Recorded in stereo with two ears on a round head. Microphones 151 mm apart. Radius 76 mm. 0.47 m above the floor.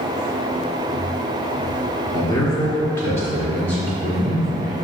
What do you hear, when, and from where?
2.1 s a man speaking: 25° left (ahead or behind), 0.8 m; by 4.7 s 5° left (ahead or behind), 1.6 m